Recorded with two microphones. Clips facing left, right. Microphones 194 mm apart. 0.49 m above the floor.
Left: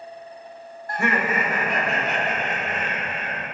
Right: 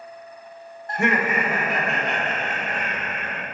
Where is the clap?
I don't hear a clap.